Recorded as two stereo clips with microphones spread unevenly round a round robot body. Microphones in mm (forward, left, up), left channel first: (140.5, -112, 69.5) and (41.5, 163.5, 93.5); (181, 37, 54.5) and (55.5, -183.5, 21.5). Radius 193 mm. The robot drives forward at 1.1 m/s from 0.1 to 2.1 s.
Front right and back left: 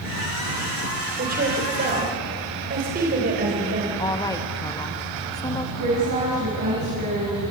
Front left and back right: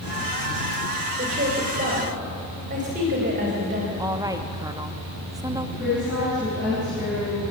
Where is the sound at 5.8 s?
160° left, 7.5 m.